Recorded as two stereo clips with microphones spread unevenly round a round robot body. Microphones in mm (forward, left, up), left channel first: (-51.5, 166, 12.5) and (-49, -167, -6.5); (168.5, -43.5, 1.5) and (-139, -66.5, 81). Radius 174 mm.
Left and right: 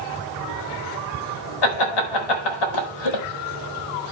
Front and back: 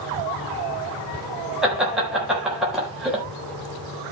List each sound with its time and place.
1.6 s laughter: 90° left, 4 m